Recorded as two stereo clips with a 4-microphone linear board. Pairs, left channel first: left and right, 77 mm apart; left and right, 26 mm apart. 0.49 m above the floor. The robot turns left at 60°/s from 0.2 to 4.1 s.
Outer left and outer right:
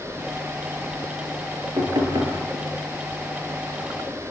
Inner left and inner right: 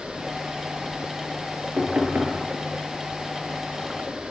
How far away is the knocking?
About 6 m.